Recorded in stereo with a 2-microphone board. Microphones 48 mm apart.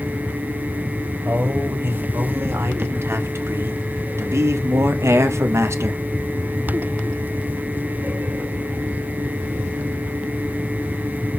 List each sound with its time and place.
1.2 s a man speaking: 55° right (ahead or behind), 3 m; by 6.0 s 70° right (ahead or behind), 1.4 m